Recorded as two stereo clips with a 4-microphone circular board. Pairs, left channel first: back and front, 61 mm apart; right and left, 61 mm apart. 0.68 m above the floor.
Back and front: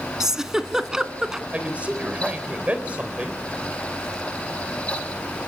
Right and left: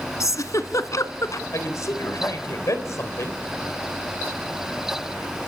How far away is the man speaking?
About 3.5 m.